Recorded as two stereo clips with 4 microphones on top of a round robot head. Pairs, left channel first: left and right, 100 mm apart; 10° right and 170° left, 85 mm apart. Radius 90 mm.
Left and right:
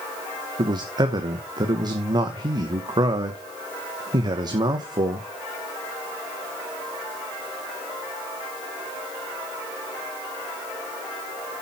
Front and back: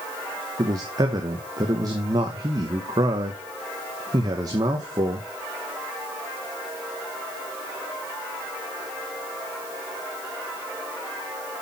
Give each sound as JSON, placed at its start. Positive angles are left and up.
{"t": 0.6, "sound": "a man speaking", "azimuth_deg": -140, "distance_m": 1.2}